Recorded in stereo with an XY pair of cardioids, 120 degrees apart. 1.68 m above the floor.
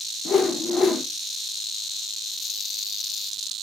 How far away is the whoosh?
About 0.8 m.